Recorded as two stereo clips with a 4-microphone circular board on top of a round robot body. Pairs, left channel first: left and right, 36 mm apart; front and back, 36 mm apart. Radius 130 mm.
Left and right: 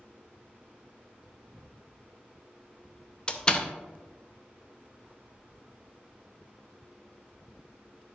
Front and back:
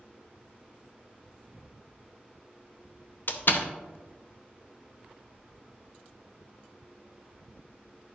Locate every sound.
3.3 s a door slam: 25° left, 0.8 m